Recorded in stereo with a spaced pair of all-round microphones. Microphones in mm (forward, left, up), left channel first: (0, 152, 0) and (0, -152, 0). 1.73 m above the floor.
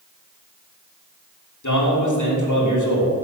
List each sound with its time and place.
1.6 s a man speaking: 75° left (ahead or behind), 3 m